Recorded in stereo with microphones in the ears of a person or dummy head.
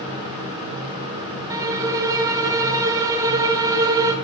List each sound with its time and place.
1.5 s a violin: 20° right (ahead or behind), 0.9 m